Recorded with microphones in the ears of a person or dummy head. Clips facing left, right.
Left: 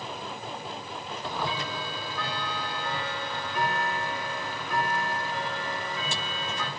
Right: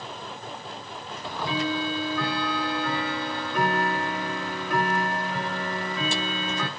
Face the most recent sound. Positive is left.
turn(degrees=-45)  # may be behind; listen again after turning